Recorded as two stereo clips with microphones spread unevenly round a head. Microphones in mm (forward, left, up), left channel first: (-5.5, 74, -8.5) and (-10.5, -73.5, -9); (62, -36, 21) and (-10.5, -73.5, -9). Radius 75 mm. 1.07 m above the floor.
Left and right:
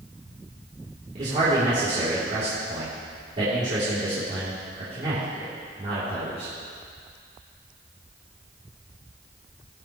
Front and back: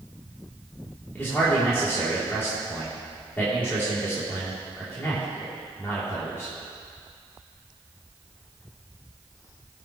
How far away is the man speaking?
About 2.5 m.